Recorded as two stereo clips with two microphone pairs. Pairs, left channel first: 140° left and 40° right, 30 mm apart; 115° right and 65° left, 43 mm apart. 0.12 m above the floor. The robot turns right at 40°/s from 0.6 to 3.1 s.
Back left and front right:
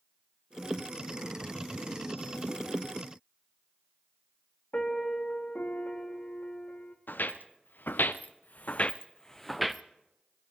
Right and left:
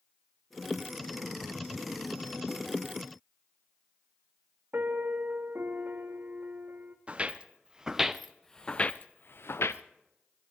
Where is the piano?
105° left, 2 m.